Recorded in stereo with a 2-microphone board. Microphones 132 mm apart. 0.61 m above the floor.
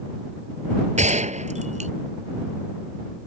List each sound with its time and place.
1.0 s a gunshot: 65° right (ahead or behind)